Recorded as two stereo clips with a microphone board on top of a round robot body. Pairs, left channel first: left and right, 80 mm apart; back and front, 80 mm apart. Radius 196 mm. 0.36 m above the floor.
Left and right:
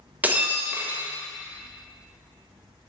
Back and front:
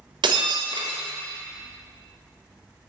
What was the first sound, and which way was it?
Breaking glass, 20° right.